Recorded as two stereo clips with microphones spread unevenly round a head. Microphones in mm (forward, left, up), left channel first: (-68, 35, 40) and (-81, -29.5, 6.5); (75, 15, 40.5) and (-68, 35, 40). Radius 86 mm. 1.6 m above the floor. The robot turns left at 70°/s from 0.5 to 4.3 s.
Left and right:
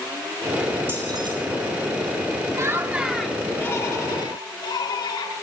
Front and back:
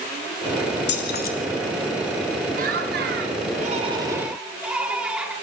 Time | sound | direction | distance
0.9 | keys jangling | 15° right | 2.5 m
2.5 | laughter | 150° right | 5 m